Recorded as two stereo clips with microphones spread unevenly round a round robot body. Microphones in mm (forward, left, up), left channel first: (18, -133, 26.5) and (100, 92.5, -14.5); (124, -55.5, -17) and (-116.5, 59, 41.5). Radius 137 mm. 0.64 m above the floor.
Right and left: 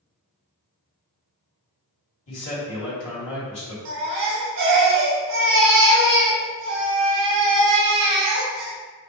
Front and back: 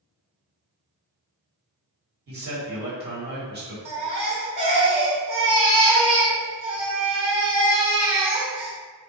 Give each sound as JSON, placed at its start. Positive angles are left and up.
{"t": 2.3, "sound": "a man speaking", "azimuth_deg": -150, "distance_m": 1.6}
{"t": 3.9, "sound": "a baby crying", "azimuth_deg": 80, "distance_m": 1.3}